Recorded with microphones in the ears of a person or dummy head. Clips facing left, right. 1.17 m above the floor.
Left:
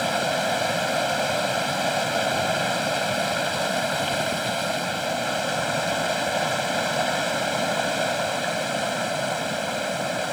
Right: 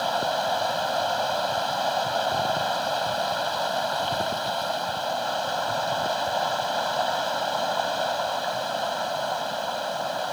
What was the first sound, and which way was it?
Running water, 30° left (ahead or behind).